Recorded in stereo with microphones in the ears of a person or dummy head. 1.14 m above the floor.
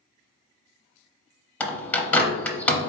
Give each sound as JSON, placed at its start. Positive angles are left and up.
{"t": 1.6, "sound": "a bird", "side_deg": 10, "distance_m": 0.6}